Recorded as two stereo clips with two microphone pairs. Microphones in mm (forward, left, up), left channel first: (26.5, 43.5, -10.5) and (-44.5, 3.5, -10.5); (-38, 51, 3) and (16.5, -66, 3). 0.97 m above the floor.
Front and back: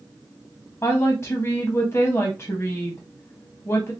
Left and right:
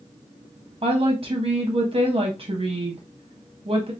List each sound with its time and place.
0.8 s a woman speaking: 20° right, 0.6 m